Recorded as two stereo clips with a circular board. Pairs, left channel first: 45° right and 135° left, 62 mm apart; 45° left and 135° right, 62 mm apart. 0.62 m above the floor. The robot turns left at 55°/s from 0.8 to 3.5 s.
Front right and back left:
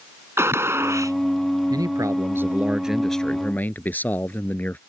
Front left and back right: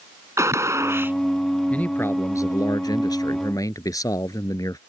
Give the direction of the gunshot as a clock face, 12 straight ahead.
6 o'clock.